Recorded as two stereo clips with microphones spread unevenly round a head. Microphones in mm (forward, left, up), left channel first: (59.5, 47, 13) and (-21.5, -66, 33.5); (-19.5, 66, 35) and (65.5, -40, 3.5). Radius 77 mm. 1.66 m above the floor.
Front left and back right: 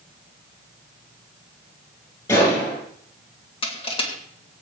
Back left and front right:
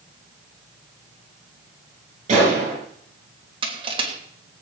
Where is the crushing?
5° left, 3 m.